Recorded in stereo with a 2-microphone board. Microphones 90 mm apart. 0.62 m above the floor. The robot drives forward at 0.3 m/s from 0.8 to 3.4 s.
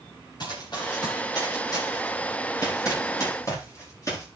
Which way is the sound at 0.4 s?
50° left (ahead or behind).